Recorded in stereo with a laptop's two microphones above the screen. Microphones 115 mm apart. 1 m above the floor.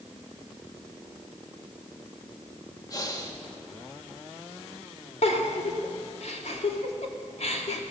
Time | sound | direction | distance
2.9 | breathing | 30° left (ahead or behind) | 1.6 m
5.2 | a giggle | 65° left (ahead or behind) | 2.5 m